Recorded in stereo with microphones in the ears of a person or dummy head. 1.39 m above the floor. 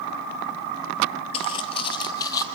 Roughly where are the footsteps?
Left.